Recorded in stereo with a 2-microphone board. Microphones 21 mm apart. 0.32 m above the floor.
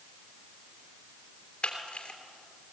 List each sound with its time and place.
1.6 s a camera shutter: 55° left (ahead or behind), 3 m